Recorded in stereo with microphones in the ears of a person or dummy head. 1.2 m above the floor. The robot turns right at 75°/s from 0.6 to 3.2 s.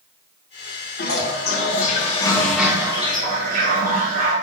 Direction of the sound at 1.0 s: 65° left.